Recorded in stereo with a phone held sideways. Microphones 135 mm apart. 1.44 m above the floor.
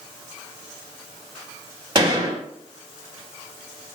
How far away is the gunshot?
About 2 m.